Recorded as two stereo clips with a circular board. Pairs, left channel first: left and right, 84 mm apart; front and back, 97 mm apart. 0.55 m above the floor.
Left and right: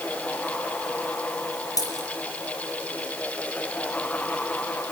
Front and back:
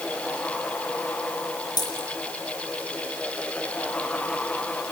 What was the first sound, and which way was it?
A dropped coin, 45° left.